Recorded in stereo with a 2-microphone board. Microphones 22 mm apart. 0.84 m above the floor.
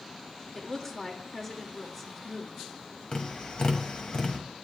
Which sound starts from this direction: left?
Tapping, at 3.1 s.